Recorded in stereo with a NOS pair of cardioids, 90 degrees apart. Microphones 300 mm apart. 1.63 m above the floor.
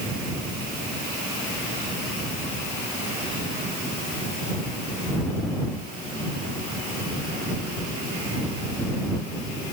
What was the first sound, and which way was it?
Only background noise.